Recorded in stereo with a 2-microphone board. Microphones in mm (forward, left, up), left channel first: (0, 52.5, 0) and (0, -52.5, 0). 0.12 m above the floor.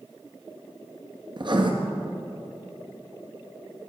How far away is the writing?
About 1.4 m.